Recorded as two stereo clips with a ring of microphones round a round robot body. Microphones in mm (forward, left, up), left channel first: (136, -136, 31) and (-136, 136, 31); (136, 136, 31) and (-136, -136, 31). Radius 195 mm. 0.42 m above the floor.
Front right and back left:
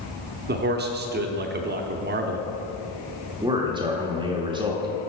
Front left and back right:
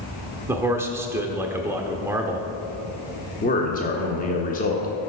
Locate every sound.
0.5 s a man speaking: 150° left, 0.8 m
3.4 s a man speaking: 75° left, 1.1 m